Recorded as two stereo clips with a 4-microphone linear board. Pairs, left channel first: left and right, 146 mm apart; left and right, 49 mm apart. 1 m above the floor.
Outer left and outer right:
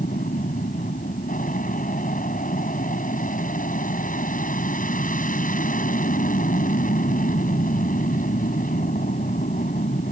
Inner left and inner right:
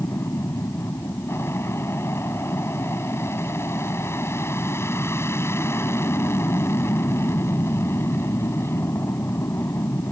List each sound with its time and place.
0.0 s an aircraft: 65° left (ahead or behind)